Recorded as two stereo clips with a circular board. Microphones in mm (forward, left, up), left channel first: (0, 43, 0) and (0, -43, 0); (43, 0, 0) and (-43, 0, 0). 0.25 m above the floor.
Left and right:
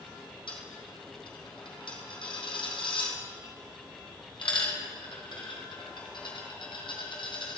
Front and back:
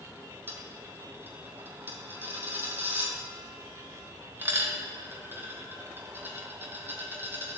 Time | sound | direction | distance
0.5 | a dropped coin | 110° left | 2 m